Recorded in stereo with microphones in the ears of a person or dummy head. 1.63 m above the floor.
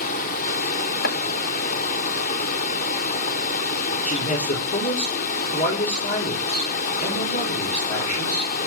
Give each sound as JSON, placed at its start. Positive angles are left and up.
{"t": 0.0, "sound": "running water", "side_deg": 55, "distance_m": 0.9}
{"t": 1.0, "sound": "chopping", "side_deg": 50, "distance_m": 1.1}
{"t": 4.0, "sound": "a man speaking", "side_deg": 40, "distance_m": 4.5}